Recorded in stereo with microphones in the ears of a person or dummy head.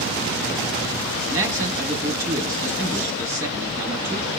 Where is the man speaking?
20° right (ahead or behind), 1.3 m.